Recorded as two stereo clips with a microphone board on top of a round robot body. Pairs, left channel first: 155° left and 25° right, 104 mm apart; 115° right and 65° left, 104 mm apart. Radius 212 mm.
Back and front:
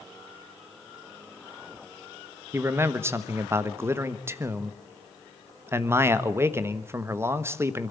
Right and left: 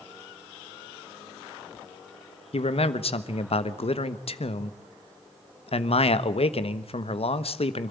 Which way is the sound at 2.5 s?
90° right.